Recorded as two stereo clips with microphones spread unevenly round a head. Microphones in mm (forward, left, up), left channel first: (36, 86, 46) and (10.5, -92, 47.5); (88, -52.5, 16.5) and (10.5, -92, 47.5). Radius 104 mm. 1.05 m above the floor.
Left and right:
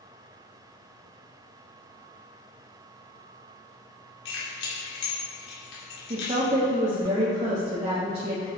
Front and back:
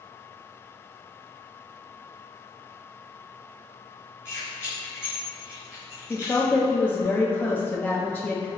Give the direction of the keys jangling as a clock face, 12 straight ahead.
9 o'clock.